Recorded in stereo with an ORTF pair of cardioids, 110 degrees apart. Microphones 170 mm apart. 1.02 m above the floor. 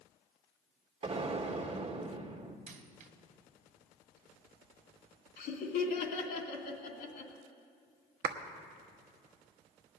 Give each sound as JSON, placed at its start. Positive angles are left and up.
{"t": 1.0, "sound": "an explosion", "azimuth_deg": -35, "distance_m": 1.6}
{"t": 2.7, "sound": "a dropped coin", "azimuth_deg": -55, "distance_m": 1.7}
{"t": 5.4, "sound": "laughter", "azimuth_deg": 70, "distance_m": 3.0}
{"t": 8.2, "sound": "a clap", "azimuth_deg": -65, "distance_m": 1.2}